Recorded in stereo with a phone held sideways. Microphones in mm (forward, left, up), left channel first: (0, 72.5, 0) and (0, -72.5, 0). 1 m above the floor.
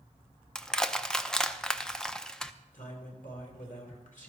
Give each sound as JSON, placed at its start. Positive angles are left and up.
{"t": 0.6, "sound": "crushing", "side_deg": 5, "distance_m": 0.5}
{"t": 2.7, "sound": "a man speaking", "side_deg": 70, "distance_m": 3.5}